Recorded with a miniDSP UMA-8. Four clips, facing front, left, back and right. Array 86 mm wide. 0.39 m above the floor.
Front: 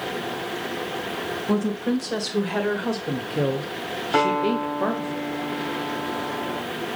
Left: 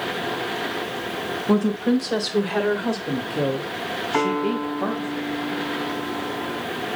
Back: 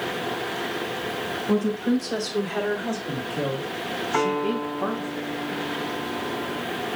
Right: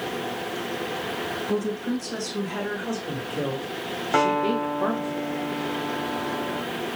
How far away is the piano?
About 4.5 m.